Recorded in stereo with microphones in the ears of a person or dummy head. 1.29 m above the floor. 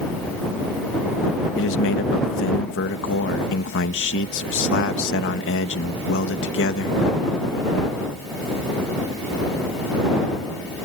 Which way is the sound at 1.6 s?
65° left (ahead or behind).